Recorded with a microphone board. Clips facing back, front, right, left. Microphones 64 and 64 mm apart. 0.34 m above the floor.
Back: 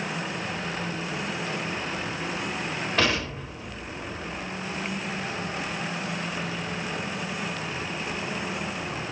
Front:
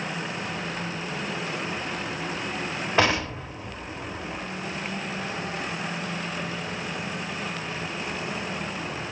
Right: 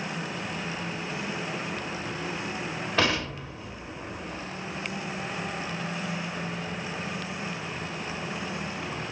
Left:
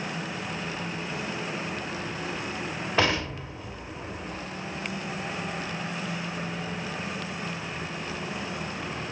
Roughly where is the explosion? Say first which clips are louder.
Front 4 dB, left 1 dB; ahead left.